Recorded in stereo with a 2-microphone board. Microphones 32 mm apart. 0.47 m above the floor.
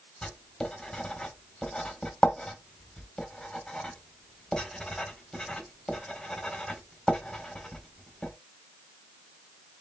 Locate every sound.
0.2 s writing: 20° left (ahead or behind), 1.5 m